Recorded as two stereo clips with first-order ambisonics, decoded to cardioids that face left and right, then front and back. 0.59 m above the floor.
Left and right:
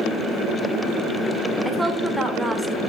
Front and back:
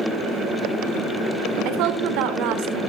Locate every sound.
1.6 s a woman speaking: straight behind, 1.9 m